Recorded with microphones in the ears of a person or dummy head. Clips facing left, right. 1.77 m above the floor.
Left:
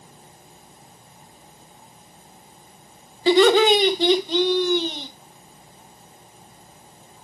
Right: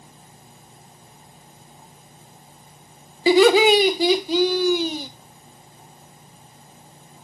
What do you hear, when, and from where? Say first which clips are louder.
3.3 s laughter: right 1 dB; 5° right (ahead or behind), 1.4 m